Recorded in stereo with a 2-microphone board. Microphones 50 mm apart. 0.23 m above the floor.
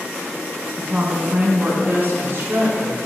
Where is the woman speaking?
15° right (ahead or behind), 1.5 m; by 3.0 s 55° right (ahead or behind), 2.5 m.